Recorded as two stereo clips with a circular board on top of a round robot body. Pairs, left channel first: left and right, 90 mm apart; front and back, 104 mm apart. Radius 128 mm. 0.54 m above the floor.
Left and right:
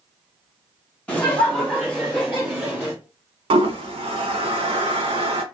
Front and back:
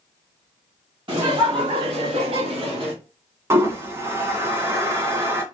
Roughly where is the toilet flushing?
Behind right.